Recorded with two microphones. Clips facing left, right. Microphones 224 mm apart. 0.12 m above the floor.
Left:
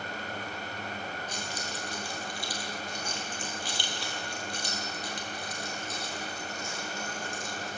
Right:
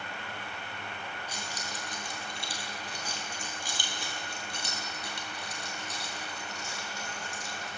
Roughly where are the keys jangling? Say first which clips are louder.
Left 3 dB; centre.